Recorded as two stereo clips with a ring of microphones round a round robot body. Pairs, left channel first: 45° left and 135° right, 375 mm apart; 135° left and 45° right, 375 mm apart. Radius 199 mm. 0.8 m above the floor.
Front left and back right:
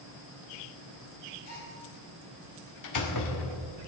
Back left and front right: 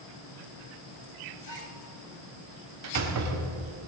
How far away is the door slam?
About 1.6 m.